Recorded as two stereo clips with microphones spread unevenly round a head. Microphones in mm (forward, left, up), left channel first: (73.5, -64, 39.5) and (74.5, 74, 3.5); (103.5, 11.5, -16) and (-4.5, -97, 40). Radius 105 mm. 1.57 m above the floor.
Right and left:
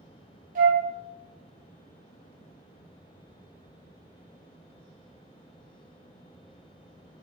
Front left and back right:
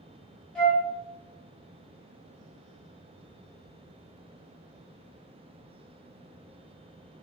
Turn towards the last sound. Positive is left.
turn(degrees=130)